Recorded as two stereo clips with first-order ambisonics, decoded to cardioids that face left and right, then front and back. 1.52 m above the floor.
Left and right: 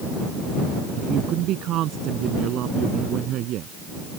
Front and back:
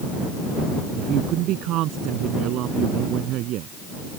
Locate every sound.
0.9 s a woman speaking: 140° right